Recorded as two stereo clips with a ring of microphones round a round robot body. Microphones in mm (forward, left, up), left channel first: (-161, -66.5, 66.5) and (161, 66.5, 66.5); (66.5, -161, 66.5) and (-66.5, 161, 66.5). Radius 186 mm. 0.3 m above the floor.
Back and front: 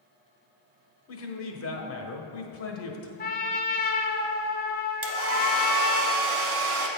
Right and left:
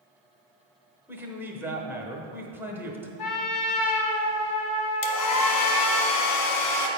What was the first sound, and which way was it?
A man speaking, 165° right.